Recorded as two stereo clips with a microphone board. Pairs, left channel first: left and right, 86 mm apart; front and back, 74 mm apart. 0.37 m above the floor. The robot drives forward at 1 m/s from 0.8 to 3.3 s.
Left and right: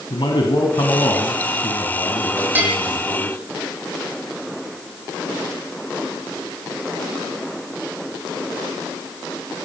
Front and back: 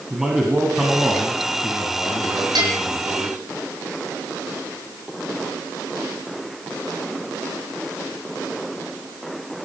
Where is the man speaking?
95° left, 3 m; by 3.4 s 135° left, 4 m.